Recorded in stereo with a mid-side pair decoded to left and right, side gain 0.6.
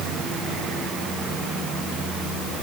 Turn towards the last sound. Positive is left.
No sound to turn to.